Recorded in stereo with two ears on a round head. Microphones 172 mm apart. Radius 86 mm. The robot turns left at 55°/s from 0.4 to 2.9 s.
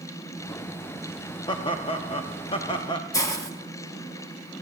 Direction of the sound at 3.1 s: 20° left (ahead or behind).